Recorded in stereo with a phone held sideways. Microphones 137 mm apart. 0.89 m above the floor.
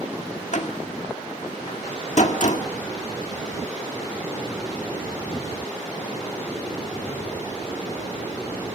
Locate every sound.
0.5 s a door slam: 60° left (ahead or behind), 1.7 m